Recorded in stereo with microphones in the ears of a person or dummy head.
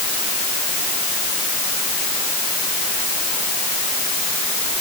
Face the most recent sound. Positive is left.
No sound to turn to.